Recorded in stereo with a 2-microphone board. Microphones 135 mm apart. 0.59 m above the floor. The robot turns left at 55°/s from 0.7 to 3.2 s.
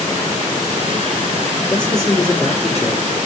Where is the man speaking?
55° left, 1.5 m; by 3.1 s 20° right, 1.5 m.